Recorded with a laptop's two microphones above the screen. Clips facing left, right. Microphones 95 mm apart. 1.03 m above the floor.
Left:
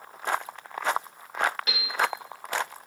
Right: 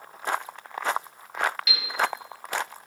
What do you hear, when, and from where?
1.7 s a piano: 40° left (ahead or behind), 1.5 m